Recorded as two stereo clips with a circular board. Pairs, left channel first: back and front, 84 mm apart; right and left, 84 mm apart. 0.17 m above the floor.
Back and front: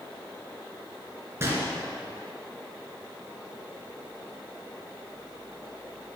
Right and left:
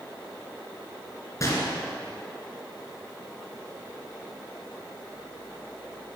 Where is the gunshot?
50° right, 2.5 m.